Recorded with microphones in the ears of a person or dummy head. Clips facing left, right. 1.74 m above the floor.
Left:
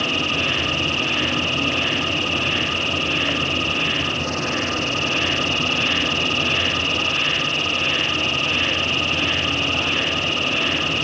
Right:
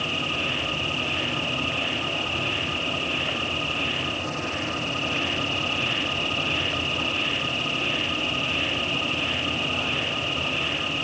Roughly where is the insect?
Left.